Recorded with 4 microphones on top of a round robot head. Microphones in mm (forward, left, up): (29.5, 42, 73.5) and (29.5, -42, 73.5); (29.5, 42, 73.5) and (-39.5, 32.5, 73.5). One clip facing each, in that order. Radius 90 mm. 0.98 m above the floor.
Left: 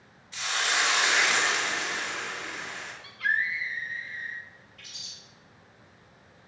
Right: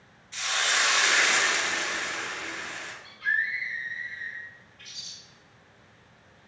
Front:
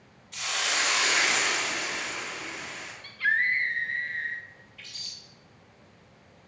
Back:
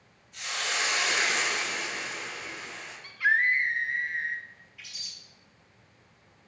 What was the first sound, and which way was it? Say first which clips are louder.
A hiss: right 1 dB, front 2 dB; 10° left.